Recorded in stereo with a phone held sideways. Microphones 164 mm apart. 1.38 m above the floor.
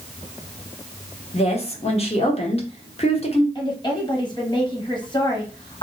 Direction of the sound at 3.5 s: 30° left (ahead or behind).